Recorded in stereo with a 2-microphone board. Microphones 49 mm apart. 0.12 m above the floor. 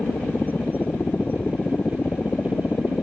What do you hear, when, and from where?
0.0 s a helicopter: 40° left (ahead or behind)